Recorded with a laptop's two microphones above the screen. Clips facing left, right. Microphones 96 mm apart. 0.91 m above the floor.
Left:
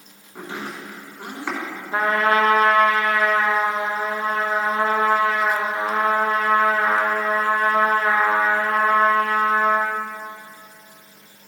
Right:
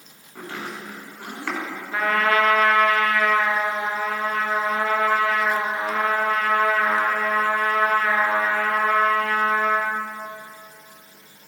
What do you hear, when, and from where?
0.3 s chopping: 15° left (ahead or behind), 3.5 m
1.9 s a trumpet: 30° left (ahead or behind), 0.7 m